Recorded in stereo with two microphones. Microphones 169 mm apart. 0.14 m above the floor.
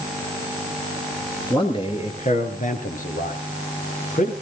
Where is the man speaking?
30° left (ahead or behind), 2.5 m; by 4.3 s 55° left (ahead or behind), 3.5 m.